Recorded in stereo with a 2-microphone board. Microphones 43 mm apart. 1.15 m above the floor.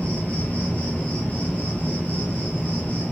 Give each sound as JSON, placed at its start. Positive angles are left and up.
{"t": 0.0, "sound": "an insect", "side_deg": 30, "distance_m": 1.7}